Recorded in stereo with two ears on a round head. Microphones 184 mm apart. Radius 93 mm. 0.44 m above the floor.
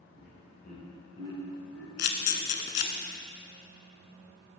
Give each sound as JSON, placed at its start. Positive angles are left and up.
{"t": 0.2, "sound": "laughter", "side_deg": 50, "distance_m": 1.7}
{"t": 2.0, "sound": "a camera shutter", "side_deg": 55, "distance_m": 0.7}